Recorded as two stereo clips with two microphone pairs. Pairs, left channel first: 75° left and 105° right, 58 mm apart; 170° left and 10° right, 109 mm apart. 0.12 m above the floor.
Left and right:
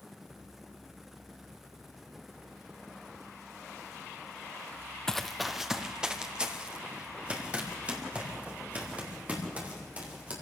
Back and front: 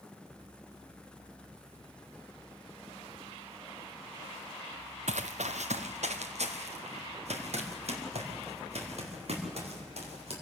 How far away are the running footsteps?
About 0.8 m.